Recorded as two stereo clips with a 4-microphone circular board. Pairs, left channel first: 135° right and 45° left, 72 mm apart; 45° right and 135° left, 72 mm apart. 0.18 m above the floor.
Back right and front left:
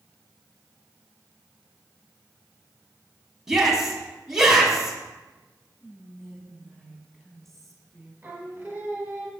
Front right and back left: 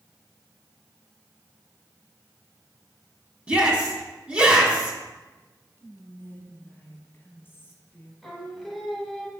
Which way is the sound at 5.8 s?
50° right.